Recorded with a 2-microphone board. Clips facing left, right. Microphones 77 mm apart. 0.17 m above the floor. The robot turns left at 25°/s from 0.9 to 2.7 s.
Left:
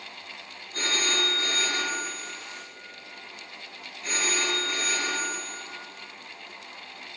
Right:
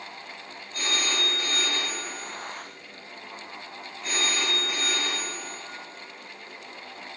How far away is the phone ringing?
About 1.6 m.